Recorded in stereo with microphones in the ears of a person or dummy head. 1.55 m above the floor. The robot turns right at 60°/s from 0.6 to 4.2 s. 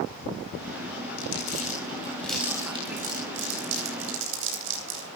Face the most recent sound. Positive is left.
turn(degrees=-65)  # may be behind; listen again after turning